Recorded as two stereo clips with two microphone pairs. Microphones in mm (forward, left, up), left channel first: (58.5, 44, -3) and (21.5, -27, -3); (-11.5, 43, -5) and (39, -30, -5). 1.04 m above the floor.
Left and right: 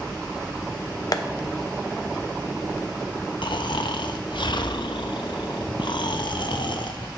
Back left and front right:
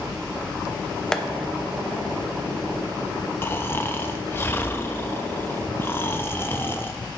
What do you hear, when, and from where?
1.1 s tapping: 40° left, 0.5 m
3.4 s snoring: 60° left, 0.5 m